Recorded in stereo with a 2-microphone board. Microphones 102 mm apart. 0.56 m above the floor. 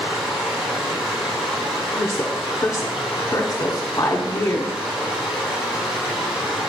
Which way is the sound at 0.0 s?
5° right (ahead or behind).